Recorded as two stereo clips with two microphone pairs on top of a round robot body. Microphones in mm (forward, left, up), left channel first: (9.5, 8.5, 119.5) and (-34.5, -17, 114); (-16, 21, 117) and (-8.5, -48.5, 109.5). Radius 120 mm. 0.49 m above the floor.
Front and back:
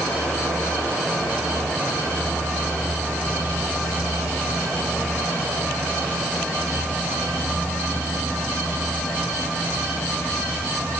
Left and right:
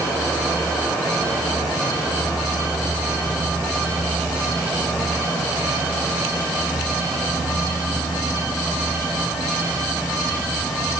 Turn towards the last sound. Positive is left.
No sound to turn to.